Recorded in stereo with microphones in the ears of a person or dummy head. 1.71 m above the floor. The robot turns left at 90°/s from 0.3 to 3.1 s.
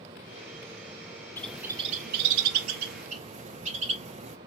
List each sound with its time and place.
1.4 s a bird: 15° left (ahead or behind), 0.5 m; by 4.4 s 35° right (ahead or behind), 0.5 m